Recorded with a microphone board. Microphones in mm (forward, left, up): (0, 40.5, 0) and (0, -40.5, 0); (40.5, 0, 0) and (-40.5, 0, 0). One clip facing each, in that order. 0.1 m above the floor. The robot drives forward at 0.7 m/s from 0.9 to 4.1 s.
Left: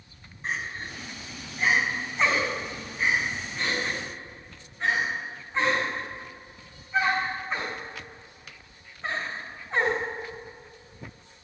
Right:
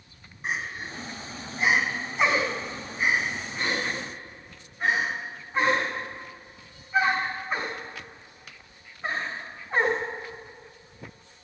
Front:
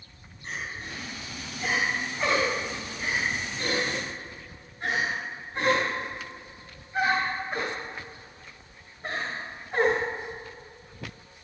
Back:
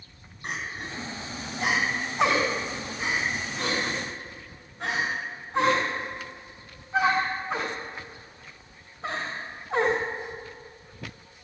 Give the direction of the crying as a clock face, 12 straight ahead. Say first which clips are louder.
Right 1 dB, back 2 dB; 6 o'clock.